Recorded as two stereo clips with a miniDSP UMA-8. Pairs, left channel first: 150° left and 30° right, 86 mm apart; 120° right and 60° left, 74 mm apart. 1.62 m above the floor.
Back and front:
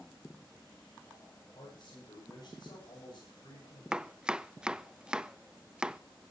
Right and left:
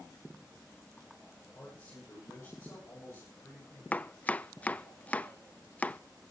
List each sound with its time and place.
1.6 s a man speaking: 175° right, 9.5 m; by 3.8 s 170° right, 10.5 m
3.9 s chopping: 95° right, 0.6 m